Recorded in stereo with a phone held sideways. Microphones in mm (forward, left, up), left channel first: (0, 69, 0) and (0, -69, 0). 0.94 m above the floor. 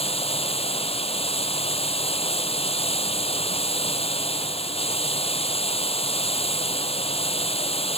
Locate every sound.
0.0 s running water: 45° left (ahead or behind)